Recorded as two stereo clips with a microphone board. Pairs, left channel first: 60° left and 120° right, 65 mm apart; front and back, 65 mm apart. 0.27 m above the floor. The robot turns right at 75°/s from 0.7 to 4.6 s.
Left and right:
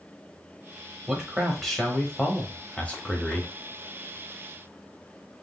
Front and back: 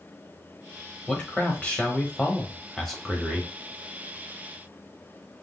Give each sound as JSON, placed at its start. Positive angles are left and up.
{"t": 1.1, "sound": "a man speaking", "azimuth_deg": -60, "distance_m": 1.0}